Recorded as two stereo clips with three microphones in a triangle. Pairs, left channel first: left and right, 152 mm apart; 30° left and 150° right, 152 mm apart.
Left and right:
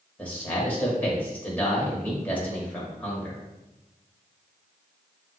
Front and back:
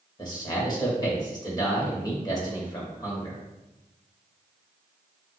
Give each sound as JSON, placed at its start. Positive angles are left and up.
{"t": 0.2, "sound": "a man speaking", "azimuth_deg": 25, "distance_m": 1.2}